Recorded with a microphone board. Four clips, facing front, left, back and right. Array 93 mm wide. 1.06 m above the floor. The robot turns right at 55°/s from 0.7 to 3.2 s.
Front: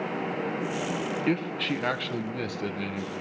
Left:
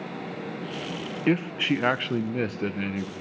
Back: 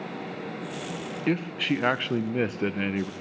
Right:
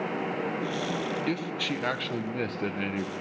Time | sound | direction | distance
1.3 | a man speaking | 95° left | 0.5 m